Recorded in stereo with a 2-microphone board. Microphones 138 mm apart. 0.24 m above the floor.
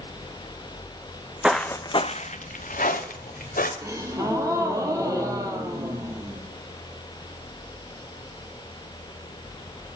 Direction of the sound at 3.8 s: 25° right (ahead or behind).